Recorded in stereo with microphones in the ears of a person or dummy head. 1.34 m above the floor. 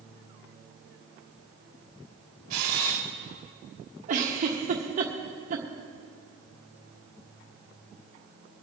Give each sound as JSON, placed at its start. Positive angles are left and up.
{"t": 2.5, "sound": "a camera shutter", "side_deg": -50, "distance_m": 1.6}
{"t": 4.1, "sound": "a giggle", "side_deg": -40, "distance_m": 1.4}